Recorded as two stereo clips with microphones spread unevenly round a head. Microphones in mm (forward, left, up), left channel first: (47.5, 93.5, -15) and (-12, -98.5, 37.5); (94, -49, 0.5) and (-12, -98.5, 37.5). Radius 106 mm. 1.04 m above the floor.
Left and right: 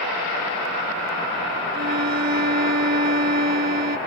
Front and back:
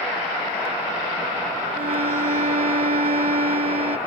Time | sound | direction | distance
1.7 | a violin | 150° right | ?